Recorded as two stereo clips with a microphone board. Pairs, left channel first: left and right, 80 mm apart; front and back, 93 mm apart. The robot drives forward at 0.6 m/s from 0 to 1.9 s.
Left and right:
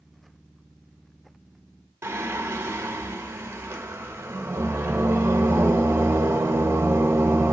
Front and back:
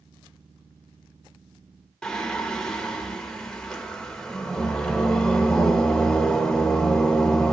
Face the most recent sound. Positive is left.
turn(degrees=-80)